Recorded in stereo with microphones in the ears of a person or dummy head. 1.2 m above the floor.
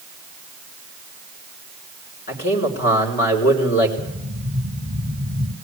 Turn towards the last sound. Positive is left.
turn(degrees=-50)  # may be behind; listen again after turning